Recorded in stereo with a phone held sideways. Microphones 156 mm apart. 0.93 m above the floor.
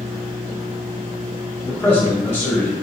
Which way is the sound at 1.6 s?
15° left (ahead or behind).